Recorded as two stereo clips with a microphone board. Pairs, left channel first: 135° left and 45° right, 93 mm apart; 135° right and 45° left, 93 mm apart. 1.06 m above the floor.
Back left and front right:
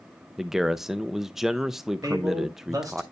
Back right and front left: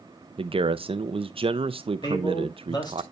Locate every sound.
0.4 s a man speaking: 40° left, 0.5 m
2.0 s a man speaking: 95° right, 2.5 m